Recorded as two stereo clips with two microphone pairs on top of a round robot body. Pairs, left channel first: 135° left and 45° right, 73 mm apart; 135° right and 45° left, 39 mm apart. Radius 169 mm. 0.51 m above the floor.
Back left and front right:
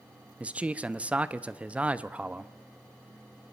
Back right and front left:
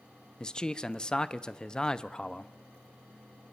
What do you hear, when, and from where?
0.4 s a man speaking: 85° right, 0.9 m